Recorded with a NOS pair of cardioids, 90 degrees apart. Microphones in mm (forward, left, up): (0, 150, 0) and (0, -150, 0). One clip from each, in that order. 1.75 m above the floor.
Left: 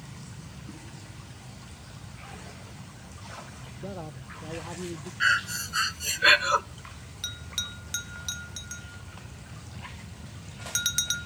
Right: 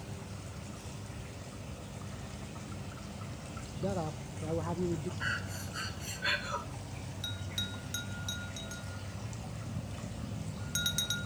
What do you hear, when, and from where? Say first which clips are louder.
3.8 s a man speaking: right 4 dB; 15° right, 0.6 m
5.2 s breathing: left 15 dB; 70° left, 1.0 m
7.2 s a bell: left 5 dB; 40° left, 1.6 m